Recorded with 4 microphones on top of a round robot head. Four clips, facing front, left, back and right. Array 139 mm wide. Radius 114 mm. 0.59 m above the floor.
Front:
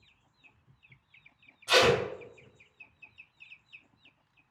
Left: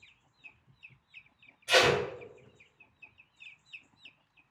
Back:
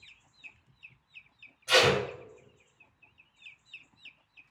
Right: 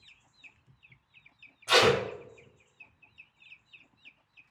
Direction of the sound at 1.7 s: 65° right.